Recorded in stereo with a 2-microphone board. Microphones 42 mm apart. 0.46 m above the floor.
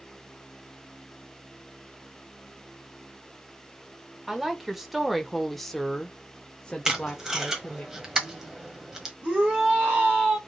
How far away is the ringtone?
No ringtone in this recording.